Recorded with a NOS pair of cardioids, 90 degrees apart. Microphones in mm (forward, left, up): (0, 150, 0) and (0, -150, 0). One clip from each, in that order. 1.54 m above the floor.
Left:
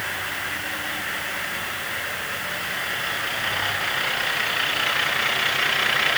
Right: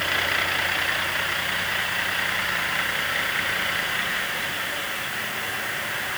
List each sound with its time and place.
Only background noise.